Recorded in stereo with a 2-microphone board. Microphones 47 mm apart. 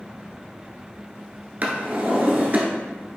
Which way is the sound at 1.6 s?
40° right (ahead or behind).